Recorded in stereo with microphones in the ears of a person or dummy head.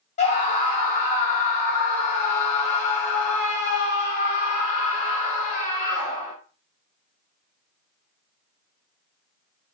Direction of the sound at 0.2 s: 50° left (ahead or behind).